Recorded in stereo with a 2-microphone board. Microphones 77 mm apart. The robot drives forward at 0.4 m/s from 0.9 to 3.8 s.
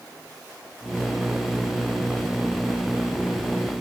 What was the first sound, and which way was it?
Only background noise.